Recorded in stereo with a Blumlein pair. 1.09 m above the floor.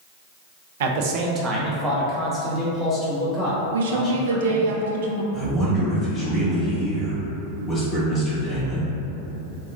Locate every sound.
0.8 s a man speaking: 60° right, 0.6 m; by 4.7 s 15° left, 2.5 m
3.7 s a woman speaking: 60° right, 0.6 m
5.3 s a man speaking: 5° right, 1.7 m